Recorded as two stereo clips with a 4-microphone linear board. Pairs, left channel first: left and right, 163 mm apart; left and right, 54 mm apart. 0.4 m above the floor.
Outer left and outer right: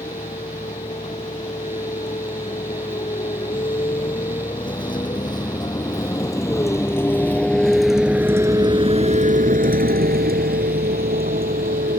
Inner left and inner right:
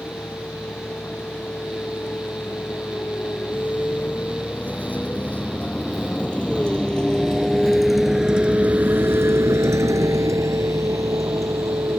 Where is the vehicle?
40° left (ahead or behind); by 12.0 s 70° right (ahead or behind).